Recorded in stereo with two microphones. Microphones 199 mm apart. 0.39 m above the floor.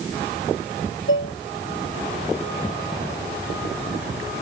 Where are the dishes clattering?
85° left.